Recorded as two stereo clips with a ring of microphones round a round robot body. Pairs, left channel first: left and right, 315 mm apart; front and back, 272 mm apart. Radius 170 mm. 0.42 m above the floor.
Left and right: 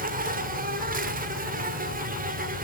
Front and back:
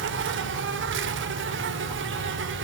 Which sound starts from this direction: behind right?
An insect, at 0.0 s.